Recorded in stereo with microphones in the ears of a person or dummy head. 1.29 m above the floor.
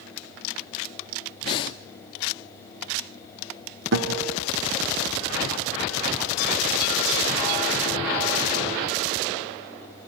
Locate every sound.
1.4 s breathing: 25° left (ahead or behind), 0.8 m
3.9 s a guitar: 65° right (ahead or behind), 1.7 m